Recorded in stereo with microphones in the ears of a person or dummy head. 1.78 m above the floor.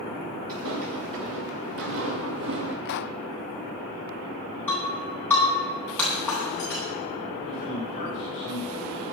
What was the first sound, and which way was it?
Footsteps, 75° right (ahead or behind).